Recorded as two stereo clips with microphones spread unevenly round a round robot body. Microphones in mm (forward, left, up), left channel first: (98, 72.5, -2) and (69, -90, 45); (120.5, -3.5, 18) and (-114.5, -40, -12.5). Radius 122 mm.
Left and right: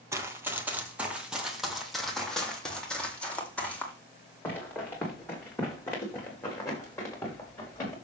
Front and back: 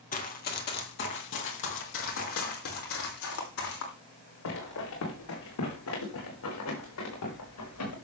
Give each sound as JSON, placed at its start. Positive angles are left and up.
{"t": 0.1, "sound": "running footsteps", "azimuth_deg": -40, "distance_m": 1.8}